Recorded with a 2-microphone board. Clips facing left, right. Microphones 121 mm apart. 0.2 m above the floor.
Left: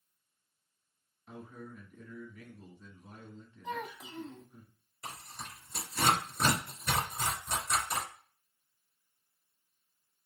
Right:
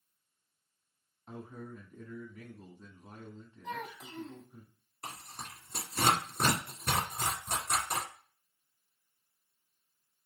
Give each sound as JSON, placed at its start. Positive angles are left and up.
{"t": 1.3, "sound": "a man speaking", "side_deg": -35, "distance_m": 1.3}
{"t": 3.6, "sound": "a child speaking", "side_deg": 5, "distance_m": 0.6}
{"t": 5.0, "sound": "tearing paper", "side_deg": -55, "distance_m": 2.5}